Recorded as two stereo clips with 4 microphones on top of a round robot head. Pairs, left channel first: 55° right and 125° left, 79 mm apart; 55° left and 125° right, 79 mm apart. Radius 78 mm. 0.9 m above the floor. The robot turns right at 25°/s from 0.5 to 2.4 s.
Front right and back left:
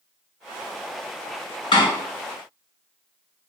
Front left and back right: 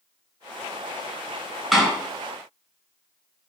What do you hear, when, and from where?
1.7 s a door slam: 35° right, 4.5 m